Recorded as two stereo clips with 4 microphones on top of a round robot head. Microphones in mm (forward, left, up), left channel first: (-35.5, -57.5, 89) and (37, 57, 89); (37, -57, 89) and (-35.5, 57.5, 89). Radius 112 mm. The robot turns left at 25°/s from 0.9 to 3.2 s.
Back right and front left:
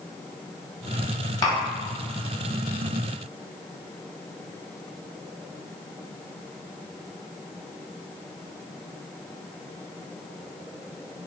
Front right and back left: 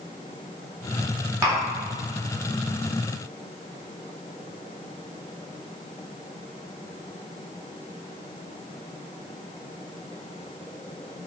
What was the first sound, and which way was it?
Tapping, 175° right.